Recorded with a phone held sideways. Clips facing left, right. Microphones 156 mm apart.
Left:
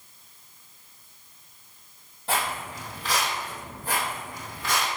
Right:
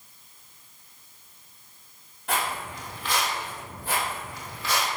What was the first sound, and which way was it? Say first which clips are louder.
Footsteps: even; 30° left (ahead or behind).